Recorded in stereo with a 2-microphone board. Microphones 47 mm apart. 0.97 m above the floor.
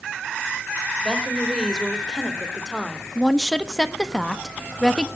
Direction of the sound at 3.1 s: 10° left (ahead or behind).